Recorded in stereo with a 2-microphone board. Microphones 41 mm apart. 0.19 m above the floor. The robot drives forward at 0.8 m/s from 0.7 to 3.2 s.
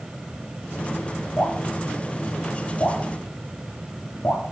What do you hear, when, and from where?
1.4 s dripping: 45° left (ahead or behind), 7 m; by 4.4 s 55° left (ahead or behind), 6 m